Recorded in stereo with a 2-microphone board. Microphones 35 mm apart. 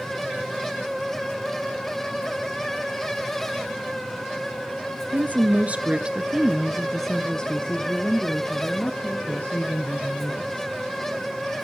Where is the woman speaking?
55° right (ahead or behind), 2 m; by 10.7 s 60° left (ahead or behind), 4.5 m.